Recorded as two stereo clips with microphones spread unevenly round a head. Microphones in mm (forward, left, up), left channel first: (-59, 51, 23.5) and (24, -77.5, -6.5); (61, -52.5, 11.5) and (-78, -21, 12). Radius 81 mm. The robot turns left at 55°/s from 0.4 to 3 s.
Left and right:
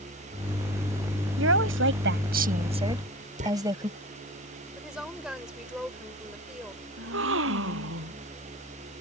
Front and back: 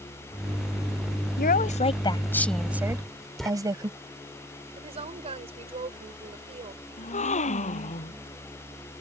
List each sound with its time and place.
1.4 s a woman speaking: 35° right; by 3.9 s 125° right
2.9 s writing: 95° right; by 3.5 s 100° right
4.8 s a woman speaking: 145° right
7.0 s a gasp: 55° right